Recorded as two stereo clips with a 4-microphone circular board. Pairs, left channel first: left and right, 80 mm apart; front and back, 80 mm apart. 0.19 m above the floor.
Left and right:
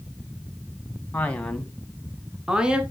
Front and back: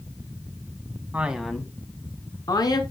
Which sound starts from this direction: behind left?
A man speaking, at 1.1 s.